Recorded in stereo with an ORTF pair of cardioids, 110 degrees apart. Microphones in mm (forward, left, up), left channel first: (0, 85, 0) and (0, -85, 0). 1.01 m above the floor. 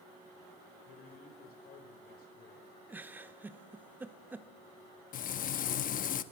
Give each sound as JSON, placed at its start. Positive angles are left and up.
{"t": 0.8, "sound": "a man speaking", "azimuth_deg": 65, "distance_m": 4.0}
{"t": 2.9, "sound": "a giggle", "azimuth_deg": -10, "distance_m": 1.2}
{"t": 5.1, "sound": "frying", "azimuth_deg": 55, "distance_m": 1.1}